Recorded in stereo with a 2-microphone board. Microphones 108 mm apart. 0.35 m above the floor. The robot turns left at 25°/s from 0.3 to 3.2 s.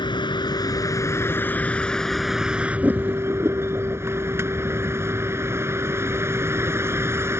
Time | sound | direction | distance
0.0 | a vehicle | 50° left | ?